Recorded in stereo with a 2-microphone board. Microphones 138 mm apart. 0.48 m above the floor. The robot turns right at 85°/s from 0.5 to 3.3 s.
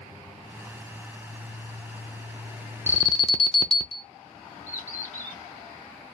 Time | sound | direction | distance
2.9 | an alarm | 25° left | 0.6 m
4.7 | a bird | 65° left (ahead or behind) | 2 m